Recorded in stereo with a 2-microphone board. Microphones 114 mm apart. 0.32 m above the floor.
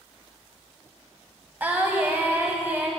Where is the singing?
15° right (ahead or behind), 1.0 m.